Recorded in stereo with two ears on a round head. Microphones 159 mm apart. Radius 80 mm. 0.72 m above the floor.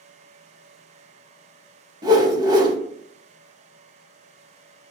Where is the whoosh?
20° right (ahead or behind), 0.7 m.